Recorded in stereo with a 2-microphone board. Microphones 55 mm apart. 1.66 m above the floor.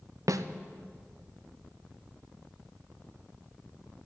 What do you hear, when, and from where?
0.3 s a snare drum: 75° right (ahead or behind), 0.6 m